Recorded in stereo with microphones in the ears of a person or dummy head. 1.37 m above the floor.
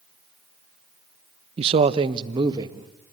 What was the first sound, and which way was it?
A man speaking, 35° right (ahead or behind).